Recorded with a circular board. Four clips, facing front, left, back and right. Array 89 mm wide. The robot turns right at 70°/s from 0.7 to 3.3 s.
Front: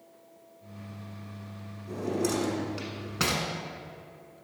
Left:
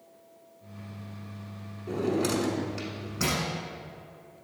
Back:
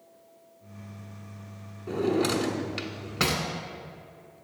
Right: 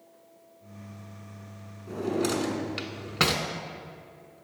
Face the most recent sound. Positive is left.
turn(degrees=-95)